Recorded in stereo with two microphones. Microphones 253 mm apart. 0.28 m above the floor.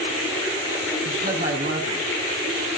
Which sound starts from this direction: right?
A woman speaking, at 1.1 s.